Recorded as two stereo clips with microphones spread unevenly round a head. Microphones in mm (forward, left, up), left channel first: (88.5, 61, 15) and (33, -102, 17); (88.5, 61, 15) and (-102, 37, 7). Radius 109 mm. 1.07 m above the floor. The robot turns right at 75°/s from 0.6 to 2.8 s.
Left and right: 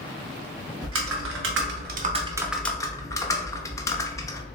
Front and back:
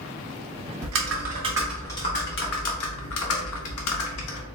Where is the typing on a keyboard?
150° right, 0.5 m; by 4.5 s straight ahead, 0.5 m.